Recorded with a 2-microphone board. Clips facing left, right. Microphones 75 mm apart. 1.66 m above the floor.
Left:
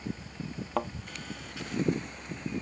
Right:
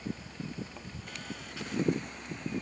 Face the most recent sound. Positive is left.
turn(degrees=75)  # may be behind; listen again after turning